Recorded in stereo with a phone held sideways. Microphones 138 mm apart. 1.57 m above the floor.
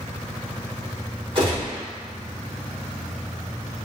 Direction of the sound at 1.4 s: 40° right (ahead or behind).